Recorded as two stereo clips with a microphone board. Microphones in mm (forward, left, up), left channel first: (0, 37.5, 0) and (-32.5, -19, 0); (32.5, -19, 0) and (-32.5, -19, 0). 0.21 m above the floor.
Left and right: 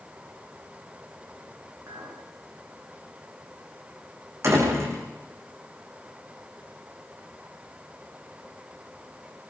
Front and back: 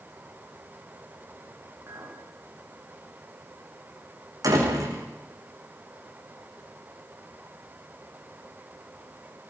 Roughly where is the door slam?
Behind.